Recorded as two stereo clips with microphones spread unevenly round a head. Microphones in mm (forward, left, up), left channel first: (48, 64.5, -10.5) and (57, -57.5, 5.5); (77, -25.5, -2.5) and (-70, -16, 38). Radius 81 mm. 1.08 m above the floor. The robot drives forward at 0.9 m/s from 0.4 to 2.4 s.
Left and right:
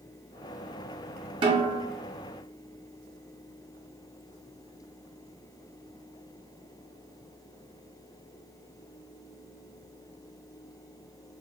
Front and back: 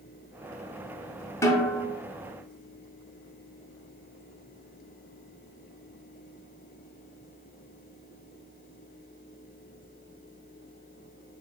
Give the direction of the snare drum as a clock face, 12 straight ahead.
3 o'clock.